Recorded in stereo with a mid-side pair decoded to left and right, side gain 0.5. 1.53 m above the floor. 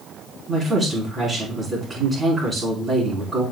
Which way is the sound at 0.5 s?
35° right.